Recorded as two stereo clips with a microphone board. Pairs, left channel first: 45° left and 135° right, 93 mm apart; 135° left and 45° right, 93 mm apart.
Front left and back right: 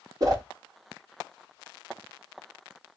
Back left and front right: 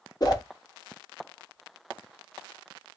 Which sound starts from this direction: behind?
A whoosh, at 0.2 s.